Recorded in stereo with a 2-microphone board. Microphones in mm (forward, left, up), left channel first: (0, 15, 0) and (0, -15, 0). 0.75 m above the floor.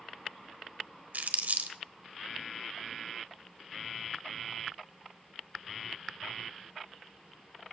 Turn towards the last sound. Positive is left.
turn(degrees=-70)  # may be behind; listen again after turning